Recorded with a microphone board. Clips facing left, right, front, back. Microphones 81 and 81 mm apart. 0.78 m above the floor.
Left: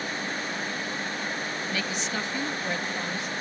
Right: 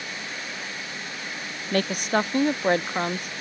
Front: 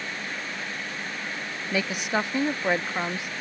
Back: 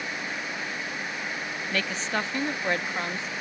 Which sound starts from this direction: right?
A woman speaking, at 1.7 s.